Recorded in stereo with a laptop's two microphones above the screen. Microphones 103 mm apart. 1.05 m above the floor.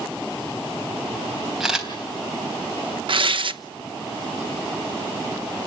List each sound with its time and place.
1.6 s a camera shutter: 5° right (ahead or behind), 3.5 m
3.1 s tearing paper: 60° right (ahead or behind), 0.9 m